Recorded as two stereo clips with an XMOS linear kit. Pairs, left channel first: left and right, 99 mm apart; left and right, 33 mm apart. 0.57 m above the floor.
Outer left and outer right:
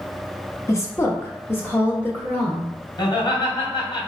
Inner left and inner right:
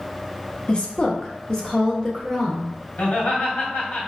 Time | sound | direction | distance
0.7 | a woman speaking | 30° left (ahead or behind) | 0.8 m
3.0 | laughter | 50° left (ahead or behind) | 1.8 m